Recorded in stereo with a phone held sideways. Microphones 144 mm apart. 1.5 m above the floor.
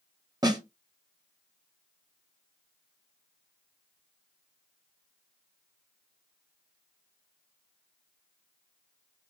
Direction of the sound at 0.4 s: 30° right (ahead or behind).